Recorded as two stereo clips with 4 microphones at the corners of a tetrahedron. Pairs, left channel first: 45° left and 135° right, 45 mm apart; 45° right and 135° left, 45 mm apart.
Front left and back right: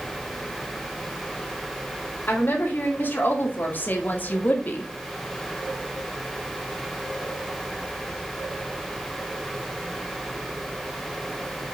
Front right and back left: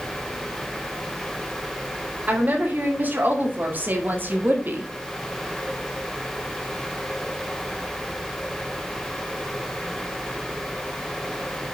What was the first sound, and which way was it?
A woman speaking, 85° left.